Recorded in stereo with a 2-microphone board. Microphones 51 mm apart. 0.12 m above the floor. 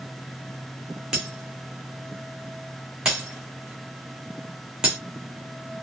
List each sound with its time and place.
1.1 s breaking glass: 10° right (ahead or behind), 1.8 m